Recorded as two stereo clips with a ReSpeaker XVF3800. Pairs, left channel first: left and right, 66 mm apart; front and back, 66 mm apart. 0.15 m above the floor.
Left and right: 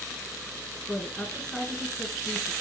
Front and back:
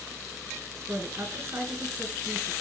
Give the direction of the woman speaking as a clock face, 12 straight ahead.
6 o'clock.